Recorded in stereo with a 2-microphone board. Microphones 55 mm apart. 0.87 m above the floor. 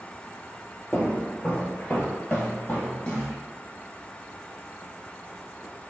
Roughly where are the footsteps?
Left.